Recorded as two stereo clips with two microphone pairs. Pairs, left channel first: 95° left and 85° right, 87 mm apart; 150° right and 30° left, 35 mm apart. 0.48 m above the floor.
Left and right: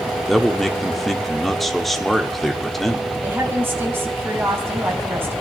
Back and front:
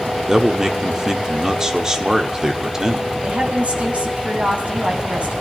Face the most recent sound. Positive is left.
turn(degrees=-20)